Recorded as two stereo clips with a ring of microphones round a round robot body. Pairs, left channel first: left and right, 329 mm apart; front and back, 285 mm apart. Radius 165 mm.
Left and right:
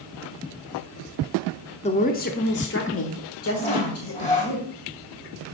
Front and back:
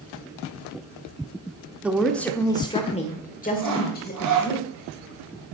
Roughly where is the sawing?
Behind.